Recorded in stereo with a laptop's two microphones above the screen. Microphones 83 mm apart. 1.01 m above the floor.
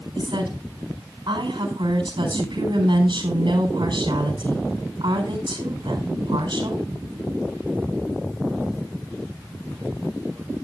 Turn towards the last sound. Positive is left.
turn(degrees=-70)  # may be behind; listen again after turning